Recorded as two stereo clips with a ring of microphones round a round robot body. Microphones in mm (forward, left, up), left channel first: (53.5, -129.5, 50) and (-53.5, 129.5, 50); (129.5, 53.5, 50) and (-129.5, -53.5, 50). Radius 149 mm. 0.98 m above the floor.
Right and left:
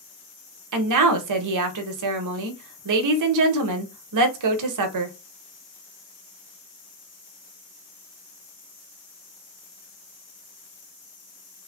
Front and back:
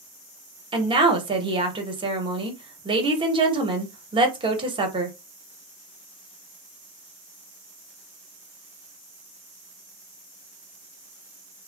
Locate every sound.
0.7 s a woman speaking: 130° left, 0.8 m